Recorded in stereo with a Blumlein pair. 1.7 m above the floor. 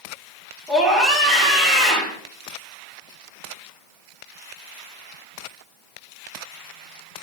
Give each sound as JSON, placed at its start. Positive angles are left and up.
{"t": 0.7, "sound": "a scream", "azimuth_deg": 0, "distance_m": 3.5}